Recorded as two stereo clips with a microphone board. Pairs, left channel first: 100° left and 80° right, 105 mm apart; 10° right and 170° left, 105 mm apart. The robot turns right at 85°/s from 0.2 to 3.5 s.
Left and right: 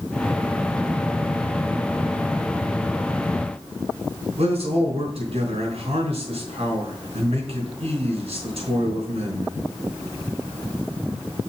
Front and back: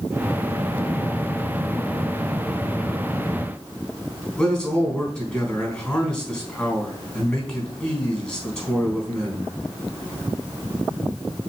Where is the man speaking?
95° right, 4 m.